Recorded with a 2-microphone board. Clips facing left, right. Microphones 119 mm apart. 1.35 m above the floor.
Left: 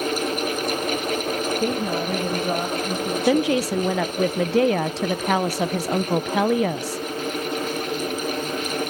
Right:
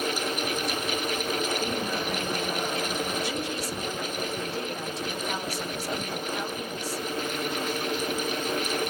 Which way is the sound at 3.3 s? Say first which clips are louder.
Left 12 dB; 85° left.